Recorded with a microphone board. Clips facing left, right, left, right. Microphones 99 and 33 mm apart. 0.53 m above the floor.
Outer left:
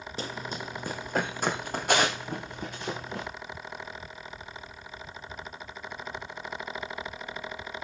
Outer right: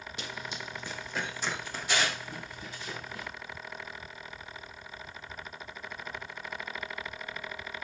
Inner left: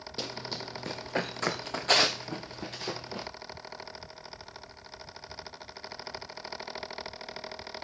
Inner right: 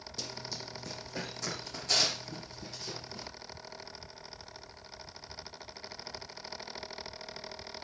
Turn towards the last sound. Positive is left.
turn(degrees=60)  # may be behind; listen again after turning